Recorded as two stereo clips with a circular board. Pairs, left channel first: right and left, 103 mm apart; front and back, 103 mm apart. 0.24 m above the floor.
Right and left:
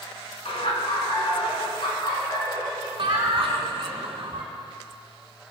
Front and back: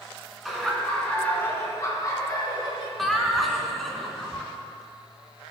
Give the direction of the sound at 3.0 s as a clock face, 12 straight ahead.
9 o'clock.